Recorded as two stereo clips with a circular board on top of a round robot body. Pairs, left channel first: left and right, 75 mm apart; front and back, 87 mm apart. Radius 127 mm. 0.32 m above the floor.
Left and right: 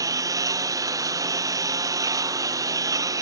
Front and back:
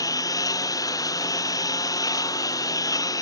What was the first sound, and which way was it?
A lawn mower, 50° right.